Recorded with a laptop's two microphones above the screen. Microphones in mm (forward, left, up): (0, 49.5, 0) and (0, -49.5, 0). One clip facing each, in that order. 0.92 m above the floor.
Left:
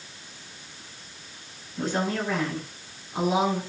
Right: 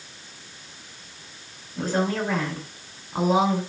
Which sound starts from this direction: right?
A woman speaking, at 1.8 s.